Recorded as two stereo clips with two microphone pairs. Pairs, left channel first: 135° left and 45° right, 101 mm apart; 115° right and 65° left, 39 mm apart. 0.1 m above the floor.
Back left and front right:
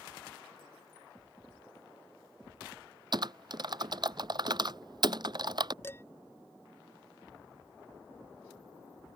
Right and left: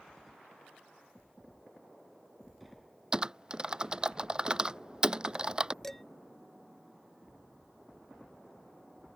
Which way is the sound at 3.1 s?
5° right.